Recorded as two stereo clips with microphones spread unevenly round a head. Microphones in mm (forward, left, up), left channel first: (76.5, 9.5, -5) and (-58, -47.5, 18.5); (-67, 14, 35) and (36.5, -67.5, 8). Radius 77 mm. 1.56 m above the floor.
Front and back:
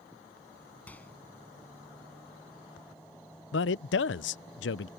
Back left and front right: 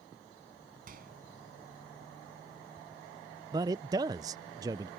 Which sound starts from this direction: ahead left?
A man speaking, at 3.5 s.